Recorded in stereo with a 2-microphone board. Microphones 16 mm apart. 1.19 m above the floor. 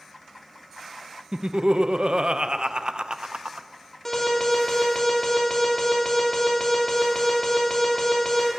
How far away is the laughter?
About 0.7 m.